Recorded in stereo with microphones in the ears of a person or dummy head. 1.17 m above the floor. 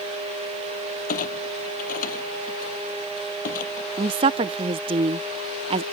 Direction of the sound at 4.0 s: 30° right (ahead or behind).